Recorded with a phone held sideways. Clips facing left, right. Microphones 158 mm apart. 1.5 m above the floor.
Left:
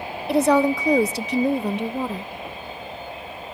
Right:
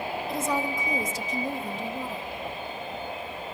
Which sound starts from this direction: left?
A woman speaking, at 0.3 s.